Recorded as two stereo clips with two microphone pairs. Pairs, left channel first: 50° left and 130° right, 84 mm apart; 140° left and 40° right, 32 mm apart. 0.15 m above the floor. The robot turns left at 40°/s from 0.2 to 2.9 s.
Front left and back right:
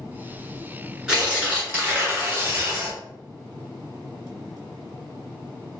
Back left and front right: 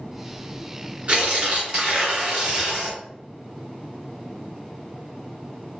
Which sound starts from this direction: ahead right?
Tearing paper, at 1.1 s.